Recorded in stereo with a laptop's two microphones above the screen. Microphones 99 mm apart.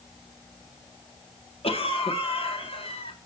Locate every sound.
1.6 s a cough: 70° left (ahead or behind), 2.5 m